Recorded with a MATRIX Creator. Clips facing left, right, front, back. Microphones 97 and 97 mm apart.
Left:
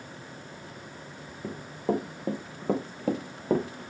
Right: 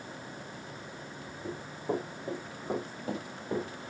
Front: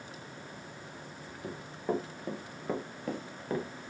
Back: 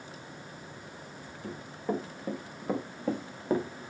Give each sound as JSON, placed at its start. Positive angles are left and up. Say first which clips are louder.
{"t": 1.4, "sound": "running footsteps", "louder": "left 5 dB, even", "azimuth_deg": 85, "distance_m": 2.5}